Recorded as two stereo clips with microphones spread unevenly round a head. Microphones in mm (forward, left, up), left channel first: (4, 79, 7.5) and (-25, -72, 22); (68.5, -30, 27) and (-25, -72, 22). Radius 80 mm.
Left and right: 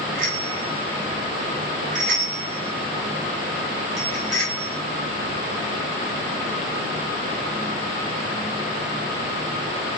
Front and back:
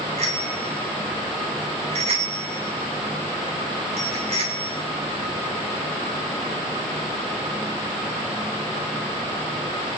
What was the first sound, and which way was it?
A bicycle bell, 140° right.